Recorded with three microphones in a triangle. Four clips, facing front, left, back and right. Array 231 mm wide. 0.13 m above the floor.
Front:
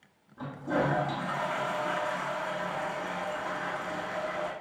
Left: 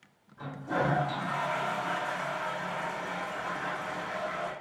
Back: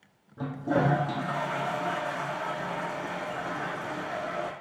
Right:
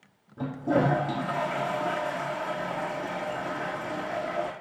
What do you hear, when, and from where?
0.4 s a toilet flushing: 125° right, 2.5 m